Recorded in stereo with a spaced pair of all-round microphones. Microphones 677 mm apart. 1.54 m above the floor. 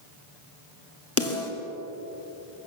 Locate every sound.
1.2 s a snare drum: 20° left (ahead or behind), 3 m